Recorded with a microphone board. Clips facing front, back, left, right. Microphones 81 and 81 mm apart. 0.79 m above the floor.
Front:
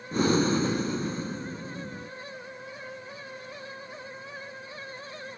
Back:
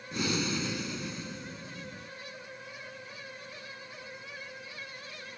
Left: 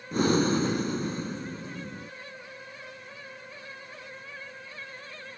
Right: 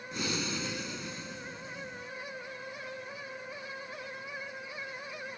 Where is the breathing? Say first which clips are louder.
Front 9 dB, left 12 dB; 50° left.